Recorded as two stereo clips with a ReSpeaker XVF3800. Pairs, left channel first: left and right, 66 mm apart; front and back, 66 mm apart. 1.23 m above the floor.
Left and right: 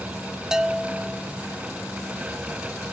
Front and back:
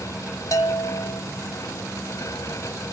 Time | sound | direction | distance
0.5 | a bell | 15° right | 0.9 m